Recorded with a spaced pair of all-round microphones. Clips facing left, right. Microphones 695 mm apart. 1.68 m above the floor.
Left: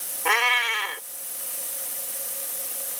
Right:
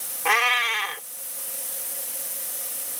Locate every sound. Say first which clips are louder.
0.2 s a cat meowing: even; 35° right (ahead or behind)